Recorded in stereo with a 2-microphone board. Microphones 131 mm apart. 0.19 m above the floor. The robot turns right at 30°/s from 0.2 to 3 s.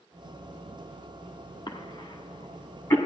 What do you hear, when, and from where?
1.7 s a cough: 40° left (ahead or behind), 1.3 m; by 3.0 s 20° left (ahead or behind), 1.3 m